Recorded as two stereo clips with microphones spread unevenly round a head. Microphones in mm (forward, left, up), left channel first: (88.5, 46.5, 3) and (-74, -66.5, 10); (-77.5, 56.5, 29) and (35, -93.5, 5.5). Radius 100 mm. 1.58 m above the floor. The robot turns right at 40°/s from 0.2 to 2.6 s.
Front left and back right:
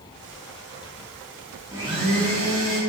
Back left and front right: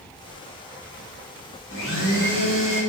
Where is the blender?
140° left, 5 m; by 2.8 s 175° left, 5 m.